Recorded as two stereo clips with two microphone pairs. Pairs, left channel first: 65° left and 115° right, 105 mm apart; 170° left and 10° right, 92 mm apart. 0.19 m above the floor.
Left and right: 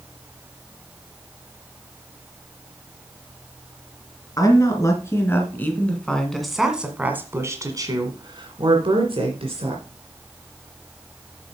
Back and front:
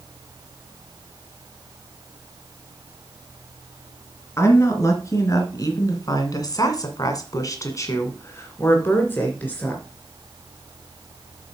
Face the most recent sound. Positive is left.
turn(degrees=-120)